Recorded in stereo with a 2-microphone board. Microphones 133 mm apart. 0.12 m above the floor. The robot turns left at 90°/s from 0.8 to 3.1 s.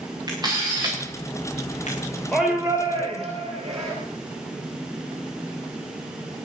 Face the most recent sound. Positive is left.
turn(degrees=-50)